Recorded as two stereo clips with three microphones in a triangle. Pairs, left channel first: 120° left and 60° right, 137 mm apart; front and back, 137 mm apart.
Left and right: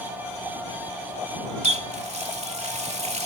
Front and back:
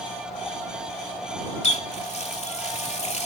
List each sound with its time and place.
1.6 s a running tap: 30° right